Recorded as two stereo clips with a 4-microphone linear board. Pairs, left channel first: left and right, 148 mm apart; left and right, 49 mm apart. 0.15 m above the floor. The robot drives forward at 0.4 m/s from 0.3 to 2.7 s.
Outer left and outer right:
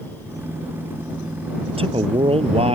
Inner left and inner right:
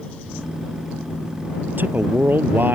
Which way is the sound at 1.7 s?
40° right (ahead or behind).